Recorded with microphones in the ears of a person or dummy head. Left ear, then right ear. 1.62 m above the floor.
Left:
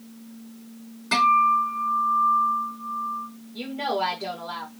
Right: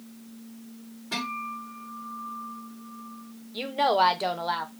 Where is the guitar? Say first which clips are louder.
Left 15 dB; 60° left (ahead or behind), 1.4 m.